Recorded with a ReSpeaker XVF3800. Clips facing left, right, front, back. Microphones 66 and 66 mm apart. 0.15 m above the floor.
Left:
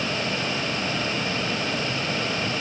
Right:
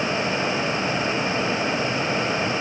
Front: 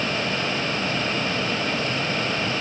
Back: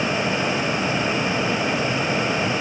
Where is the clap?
I don't hear a clap.